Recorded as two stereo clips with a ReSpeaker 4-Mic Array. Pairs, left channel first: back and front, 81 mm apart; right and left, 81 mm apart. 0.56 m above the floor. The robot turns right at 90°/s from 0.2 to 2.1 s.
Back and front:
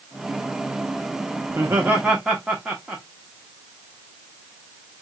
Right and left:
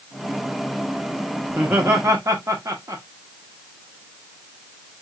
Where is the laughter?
20° left, 1.0 m; by 3.0 s 75° left, 1.0 m.